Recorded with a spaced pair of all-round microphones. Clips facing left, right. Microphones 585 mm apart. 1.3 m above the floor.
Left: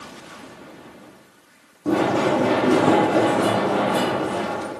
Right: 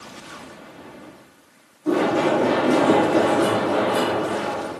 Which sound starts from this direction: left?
Running footsteps, at 1.9 s.